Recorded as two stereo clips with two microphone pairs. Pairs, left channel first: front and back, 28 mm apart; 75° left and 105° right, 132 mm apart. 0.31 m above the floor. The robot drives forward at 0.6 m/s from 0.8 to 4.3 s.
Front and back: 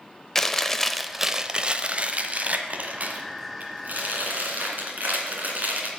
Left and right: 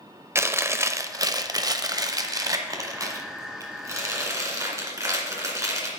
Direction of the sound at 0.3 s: 70° right.